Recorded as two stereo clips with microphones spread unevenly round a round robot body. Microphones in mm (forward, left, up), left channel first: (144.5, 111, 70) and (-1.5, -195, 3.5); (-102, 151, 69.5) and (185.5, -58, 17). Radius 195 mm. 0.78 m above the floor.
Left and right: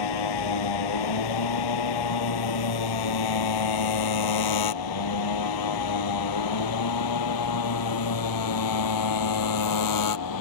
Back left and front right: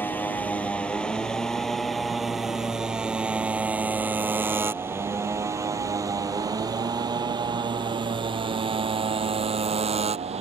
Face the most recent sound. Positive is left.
turn(degrees=35)